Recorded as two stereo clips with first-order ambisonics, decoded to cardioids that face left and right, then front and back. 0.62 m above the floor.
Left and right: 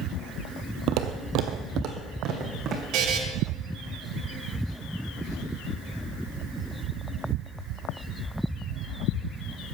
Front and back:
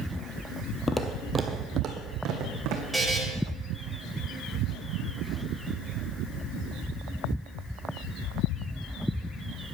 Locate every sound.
0.9 s footsteps: 70° right, 1.0 m; by 2.8 s 150° right, 2.5 m
2.9 s a buzzer: 95° right, 1.8 m